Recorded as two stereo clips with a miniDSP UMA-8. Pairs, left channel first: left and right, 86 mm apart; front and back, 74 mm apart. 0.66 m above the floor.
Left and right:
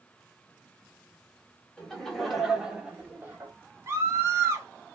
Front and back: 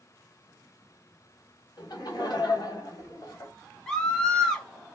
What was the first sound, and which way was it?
Laughter, 10° left.